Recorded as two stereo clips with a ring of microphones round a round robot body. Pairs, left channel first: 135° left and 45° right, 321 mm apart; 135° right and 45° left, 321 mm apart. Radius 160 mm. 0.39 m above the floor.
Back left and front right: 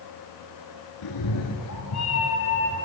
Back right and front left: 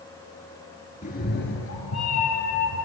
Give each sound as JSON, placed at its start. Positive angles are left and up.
{"t": 1.0, "sound": "a cat meowing", "azimuth_deg": 155, "distance_m": 1.1}